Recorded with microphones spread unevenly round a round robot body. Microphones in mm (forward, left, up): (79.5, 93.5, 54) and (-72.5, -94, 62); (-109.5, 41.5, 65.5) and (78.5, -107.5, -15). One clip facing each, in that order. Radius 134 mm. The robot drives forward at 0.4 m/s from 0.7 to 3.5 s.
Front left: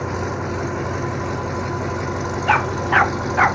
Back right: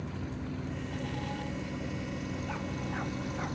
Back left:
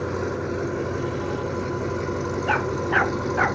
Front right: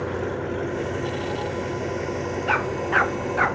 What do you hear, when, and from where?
0.0 s an engine running: 60° left; by 3.5 s 70° left
2.5 s a dog barking: 50° left